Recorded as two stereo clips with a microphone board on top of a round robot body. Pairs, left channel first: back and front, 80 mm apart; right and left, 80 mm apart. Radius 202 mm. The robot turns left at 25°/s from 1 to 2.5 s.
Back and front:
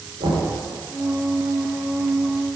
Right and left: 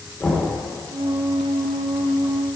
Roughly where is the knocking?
Ahead.